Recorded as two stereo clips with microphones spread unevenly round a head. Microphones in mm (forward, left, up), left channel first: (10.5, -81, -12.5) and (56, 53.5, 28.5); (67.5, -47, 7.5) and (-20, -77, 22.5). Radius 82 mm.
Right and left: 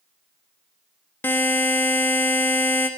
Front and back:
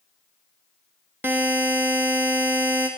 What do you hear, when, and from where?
1.2 s a buzzer: 160° left, 1.0 m